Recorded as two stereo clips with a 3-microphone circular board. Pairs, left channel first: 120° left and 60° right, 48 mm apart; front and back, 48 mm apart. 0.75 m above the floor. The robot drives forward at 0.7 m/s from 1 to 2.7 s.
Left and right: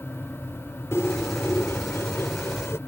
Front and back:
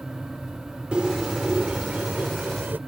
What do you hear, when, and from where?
0.9 s a bird: 115° left; by 2.8 s 135° left